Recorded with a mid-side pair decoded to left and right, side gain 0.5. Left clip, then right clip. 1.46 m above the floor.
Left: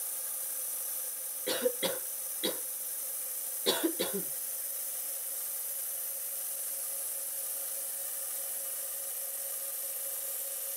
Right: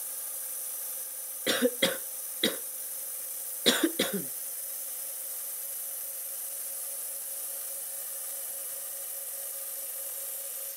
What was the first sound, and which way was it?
A cough, 65° right.